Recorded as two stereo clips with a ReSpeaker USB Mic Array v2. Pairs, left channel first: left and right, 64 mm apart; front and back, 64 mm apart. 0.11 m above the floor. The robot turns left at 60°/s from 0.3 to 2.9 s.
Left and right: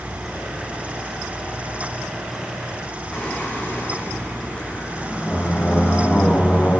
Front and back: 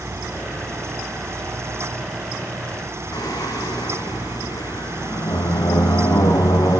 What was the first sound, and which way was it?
Singing, 20° left.